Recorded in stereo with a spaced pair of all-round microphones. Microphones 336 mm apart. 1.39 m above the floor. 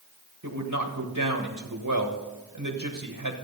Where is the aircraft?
No aircraft in this recording.